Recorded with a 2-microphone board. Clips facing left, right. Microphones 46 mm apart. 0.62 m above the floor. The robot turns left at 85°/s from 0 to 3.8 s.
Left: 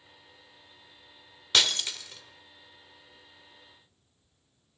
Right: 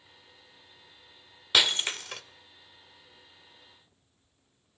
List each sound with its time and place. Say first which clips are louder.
1.5 s breaking glass: right 1 dB; 10° right (ahead or behind), 1.2 m; by 2.2 s 65° right (ahead or behind), 1.2 m